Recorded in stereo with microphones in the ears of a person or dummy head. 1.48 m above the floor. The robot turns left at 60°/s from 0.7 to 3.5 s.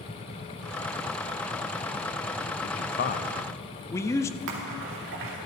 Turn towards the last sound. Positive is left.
turn(degrees=-65)  # may be behind; listen again after turning